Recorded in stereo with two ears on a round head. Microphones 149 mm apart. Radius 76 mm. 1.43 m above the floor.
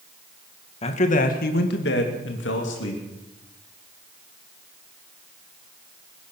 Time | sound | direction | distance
0.8 | a man speaking | 40° left (ahead or behind) | 1.8 m